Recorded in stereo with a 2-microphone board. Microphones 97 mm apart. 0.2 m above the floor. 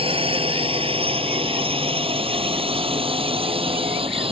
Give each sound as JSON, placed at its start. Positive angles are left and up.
{"t": 0.0, "sound": "a drone", "side_deg": -65}